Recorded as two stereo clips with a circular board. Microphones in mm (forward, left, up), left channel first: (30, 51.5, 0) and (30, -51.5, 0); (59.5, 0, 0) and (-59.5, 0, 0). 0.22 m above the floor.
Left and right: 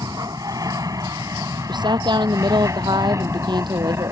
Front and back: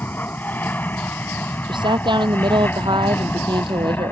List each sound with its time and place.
0.0 s an aircraft: 65° right; by 4.1 s 55° right
1.7 s a woman speaking: 130° right